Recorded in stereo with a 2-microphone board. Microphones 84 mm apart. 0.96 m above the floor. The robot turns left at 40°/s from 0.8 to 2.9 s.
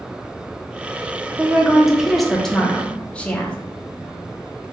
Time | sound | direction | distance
1.4 | a woman speaking | 15° right (ahead or behind) | 0.5 m